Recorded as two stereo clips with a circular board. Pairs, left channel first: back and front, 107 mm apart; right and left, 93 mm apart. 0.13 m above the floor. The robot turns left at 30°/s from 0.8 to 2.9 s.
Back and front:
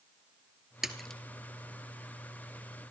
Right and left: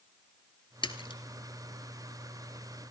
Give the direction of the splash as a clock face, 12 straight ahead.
3 o'clock.